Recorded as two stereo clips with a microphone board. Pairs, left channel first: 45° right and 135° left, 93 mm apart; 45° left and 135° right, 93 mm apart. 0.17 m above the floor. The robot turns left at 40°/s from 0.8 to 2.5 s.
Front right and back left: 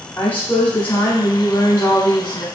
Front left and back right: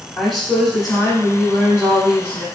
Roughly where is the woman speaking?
Ahead right.